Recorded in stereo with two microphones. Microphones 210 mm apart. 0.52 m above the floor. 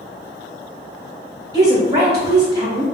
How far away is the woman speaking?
About 0.8 m.